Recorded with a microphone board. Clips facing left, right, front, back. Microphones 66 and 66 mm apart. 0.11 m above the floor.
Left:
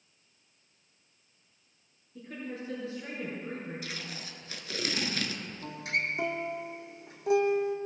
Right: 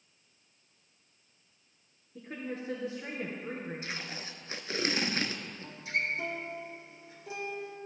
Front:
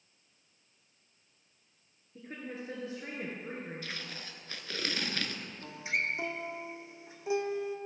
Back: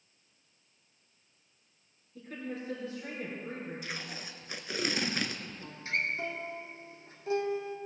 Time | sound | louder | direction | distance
2.1 | a woman speaking | right 1 dB, back 2 dB | 50° right | 2 m
3.8 | tape being pulled | right 1 dB, back 2 dB | 115° right | 0.7 m
5.6 | a guitar | left 1 dB, even | 75° left | 1.1 m